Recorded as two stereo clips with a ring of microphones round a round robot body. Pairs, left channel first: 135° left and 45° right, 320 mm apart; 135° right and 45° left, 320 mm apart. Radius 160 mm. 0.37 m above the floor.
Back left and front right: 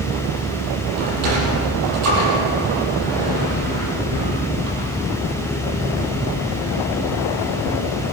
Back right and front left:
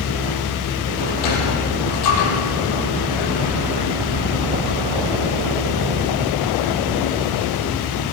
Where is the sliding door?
90° right, 8 m.